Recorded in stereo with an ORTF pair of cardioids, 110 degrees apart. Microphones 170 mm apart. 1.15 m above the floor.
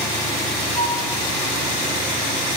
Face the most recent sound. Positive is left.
turn(degrees=25)